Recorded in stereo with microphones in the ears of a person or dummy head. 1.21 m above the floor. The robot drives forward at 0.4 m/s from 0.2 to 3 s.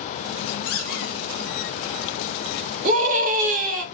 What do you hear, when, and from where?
0.7 s a squeak: 80° left, 2.5 m; by 1.2 s 85° left, 2.5 m
2.8 s a scream: 45° right (ahead or behind), 2.5 m